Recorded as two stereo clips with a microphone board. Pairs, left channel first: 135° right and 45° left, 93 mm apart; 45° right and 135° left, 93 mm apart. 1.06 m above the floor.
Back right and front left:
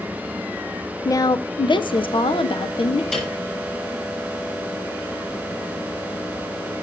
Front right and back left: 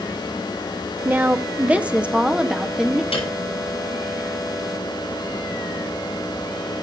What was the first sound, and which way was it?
A woman speaking, 165° right.